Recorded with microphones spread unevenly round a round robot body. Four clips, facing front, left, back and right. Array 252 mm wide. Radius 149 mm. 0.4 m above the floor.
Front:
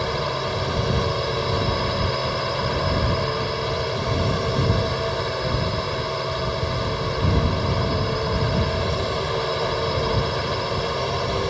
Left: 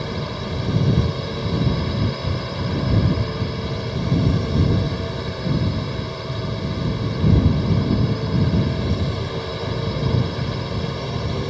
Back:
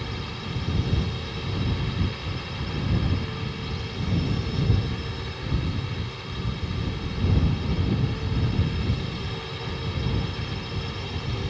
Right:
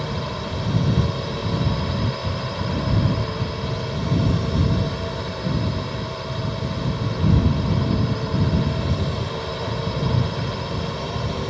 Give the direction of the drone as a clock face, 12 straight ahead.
11 o'clock.